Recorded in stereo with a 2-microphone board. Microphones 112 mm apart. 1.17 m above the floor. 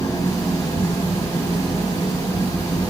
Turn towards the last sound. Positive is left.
turn(degrees=30)  # may be behind; listen again after turning